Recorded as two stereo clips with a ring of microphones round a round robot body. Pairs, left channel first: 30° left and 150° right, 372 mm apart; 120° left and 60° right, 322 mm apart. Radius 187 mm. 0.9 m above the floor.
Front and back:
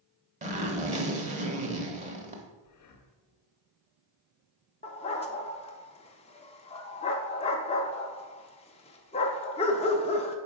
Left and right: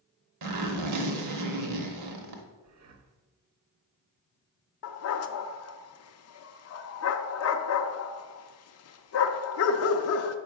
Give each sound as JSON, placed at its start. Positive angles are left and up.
{"t": 0.4, "sound": "a zipper", "azimuth_deg": -80, "distance_m": 0.9}
{"t": 2.6, "sound": "breathing", "azimuth_deg": -15, "distance_m": 0.8}
{"t": 4.8, "sound": "a dog barking", "azimuth_deg": 100, "distance_m": 0.5}